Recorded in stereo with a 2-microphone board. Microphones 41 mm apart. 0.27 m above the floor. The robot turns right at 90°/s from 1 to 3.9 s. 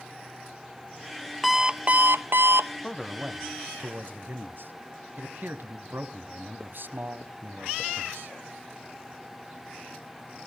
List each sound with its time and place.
1.4 s an alarm clock: straight behind, 0.5 m; by 2.7 s 65° right, 0.5 m
2.8 s a man speaking: 170° left, 1.5 m; by 8.3 s 95° right, 1.5 m